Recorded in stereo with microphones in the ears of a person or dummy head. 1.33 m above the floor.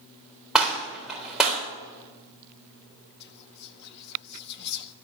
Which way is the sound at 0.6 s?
5° left (ahead or behind).